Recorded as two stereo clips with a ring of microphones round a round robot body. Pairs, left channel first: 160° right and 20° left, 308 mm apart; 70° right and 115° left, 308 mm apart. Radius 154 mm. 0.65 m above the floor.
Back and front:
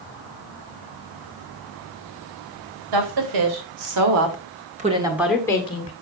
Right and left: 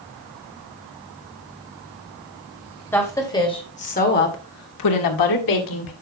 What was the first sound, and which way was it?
A woman speaking, 15° left.